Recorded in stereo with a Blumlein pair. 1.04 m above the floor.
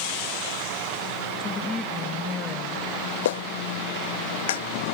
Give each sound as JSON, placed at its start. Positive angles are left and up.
{"t": 1.4, "sound": "a woman speaking", "azimuth_deg": 15}
{"t": 3.2, "sound": "a clap", "azimuth_deg": 60}